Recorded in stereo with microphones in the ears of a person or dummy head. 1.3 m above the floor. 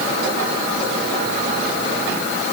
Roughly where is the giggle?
I don't hear a giggle.